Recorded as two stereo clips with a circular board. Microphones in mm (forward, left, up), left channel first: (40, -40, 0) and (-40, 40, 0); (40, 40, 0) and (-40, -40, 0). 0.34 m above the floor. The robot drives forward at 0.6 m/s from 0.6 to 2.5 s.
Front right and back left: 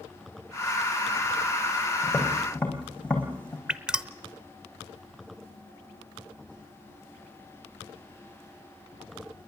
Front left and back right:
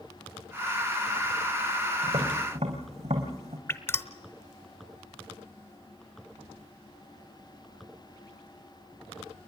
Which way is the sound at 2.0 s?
120° right.